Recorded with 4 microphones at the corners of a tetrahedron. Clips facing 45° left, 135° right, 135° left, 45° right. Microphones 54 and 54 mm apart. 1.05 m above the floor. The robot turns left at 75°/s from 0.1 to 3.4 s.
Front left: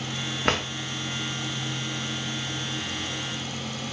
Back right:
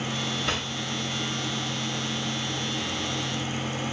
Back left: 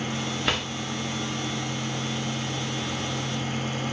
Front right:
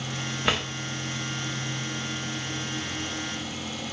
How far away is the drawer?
About 0.7 m.